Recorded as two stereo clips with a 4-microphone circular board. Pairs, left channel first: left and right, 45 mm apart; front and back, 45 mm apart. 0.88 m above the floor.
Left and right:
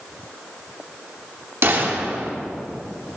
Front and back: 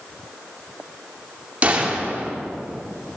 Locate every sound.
1.6 s a gunshot: 120° right, 2 m